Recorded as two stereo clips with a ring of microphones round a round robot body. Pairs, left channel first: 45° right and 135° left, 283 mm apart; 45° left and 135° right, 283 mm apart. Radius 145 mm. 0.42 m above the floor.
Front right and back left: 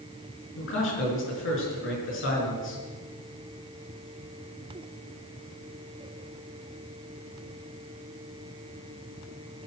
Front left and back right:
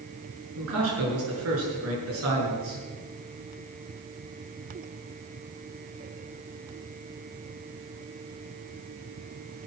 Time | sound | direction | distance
0.6 | a man speaking | 95° right | 7.5 m